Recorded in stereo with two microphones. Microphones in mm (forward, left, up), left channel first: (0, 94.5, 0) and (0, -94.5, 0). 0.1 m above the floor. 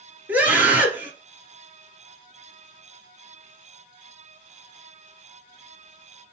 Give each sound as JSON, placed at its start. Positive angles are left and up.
{"t": 0.3, "sound": "a scream", "side_deg": -10, "distance_m": 1.9}